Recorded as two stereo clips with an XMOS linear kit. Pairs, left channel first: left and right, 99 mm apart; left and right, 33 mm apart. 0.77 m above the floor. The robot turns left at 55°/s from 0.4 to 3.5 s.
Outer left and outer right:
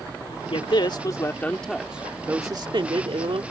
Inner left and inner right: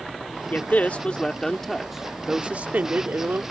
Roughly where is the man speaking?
Left.